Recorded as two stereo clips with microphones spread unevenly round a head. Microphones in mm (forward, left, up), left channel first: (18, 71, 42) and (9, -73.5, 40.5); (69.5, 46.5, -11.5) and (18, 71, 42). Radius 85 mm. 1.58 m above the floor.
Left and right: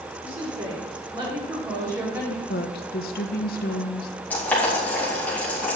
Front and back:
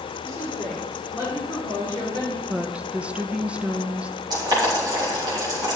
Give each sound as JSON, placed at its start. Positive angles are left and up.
{"t": 0.2, "sound": "a woman speaking", "azimuth_deg": -145, "distance_m": 4.5}
{"t": 2.5, "sound": "a woman speaking", "azimuth_deg": 115, "distance_m": 0.9}
{"t": 4.3, "sound": "boiling", "azimuth_deg": 165, "distance_m": 4.0}